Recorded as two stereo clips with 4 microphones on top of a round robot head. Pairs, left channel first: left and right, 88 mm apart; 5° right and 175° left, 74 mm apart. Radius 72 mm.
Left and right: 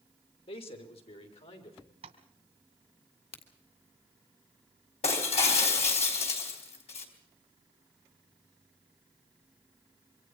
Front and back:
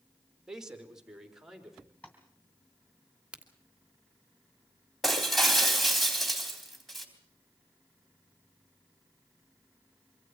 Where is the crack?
100° left, 2.5 m.